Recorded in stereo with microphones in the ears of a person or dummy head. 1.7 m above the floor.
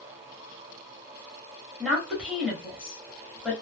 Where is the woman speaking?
5° right (ahead or behind), 1.4 m.